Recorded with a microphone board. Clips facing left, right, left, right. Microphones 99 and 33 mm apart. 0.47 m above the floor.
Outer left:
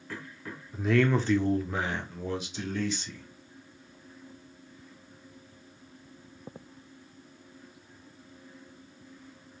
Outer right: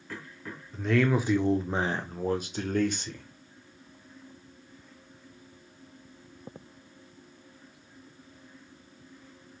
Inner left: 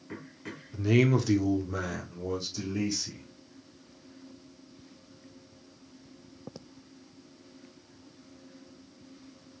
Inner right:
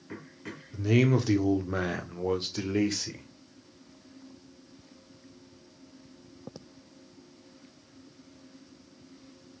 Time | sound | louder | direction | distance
0.7 | a man speaking | even, even | 5° left (ahead or behind) | 0.7 m